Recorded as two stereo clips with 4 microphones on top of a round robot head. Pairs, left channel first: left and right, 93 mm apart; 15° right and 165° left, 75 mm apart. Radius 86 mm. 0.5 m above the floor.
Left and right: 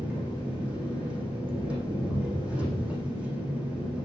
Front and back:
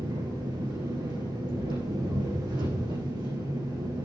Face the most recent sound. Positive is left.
turn(degrees=-170)